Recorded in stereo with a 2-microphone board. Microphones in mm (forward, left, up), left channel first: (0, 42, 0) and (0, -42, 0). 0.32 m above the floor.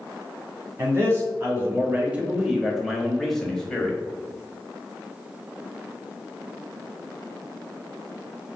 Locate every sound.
0.8 s a man speaking: 30° right (ahead or behind), 1.1 m; by 4.0 s 10° left (ahead or behind), 1.5 m